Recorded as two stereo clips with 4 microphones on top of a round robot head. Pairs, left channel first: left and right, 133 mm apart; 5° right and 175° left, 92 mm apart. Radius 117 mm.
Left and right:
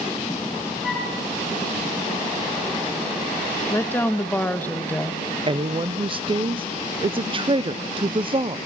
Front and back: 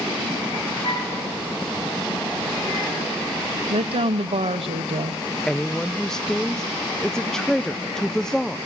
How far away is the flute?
About 5 m.